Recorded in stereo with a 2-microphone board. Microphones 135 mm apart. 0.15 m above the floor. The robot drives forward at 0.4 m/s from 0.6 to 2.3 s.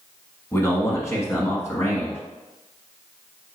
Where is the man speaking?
20° left (ahead or behind), 1.2 m.